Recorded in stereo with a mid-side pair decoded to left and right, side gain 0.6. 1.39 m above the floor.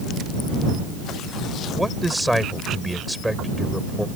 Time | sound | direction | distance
1.8 | a man speaking | 5° right | ?